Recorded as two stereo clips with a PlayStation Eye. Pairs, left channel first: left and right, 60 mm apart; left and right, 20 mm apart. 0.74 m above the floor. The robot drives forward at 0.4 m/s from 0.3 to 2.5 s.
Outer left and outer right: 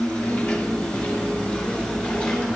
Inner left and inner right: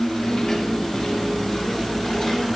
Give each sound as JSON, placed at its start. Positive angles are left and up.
{"t": 0.0, "sound": "an insect", "side_deg": 20, "distance_m": 1.8}